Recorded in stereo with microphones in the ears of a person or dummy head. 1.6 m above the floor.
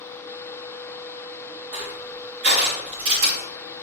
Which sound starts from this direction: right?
Crushing, at 1.7 s.